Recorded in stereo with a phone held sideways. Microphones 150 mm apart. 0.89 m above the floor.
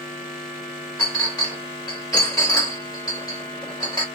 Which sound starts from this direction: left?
A clink, at 1.0 s.